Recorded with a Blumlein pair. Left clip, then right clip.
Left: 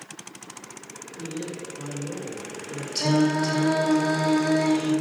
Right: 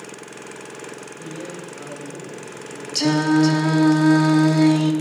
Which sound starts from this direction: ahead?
A man speaking, at 1.2 s.